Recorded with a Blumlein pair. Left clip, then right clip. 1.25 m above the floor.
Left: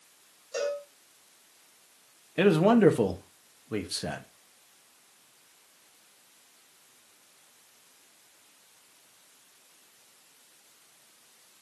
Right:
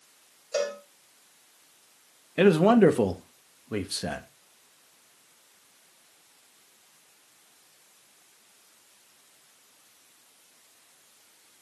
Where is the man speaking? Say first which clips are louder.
Right 2 dB; 5° right, 1.3 m.